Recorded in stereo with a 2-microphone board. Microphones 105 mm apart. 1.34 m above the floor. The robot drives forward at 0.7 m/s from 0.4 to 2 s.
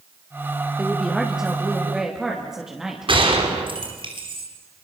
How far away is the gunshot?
About 4 m.